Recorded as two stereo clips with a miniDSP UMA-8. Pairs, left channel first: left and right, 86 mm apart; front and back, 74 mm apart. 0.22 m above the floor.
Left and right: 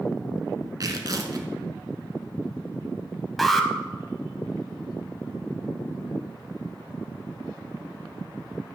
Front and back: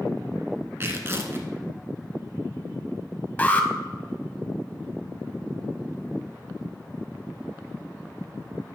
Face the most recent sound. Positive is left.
turn(degrees=5)